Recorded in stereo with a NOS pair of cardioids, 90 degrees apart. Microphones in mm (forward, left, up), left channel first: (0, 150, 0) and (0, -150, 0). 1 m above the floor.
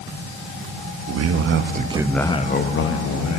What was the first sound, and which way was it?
A man speaking, 60° right.